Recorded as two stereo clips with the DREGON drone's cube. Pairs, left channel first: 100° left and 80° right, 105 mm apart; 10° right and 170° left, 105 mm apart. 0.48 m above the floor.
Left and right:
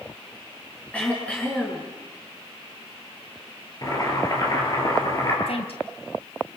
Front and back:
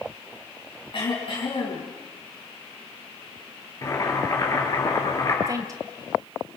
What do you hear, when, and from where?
0.9 s throat clearing: 25° left, 6.5 m
3.8 s boiling: 45° left, 6.5 m
5.5 s a woman speaking: 115° left, 2.5 m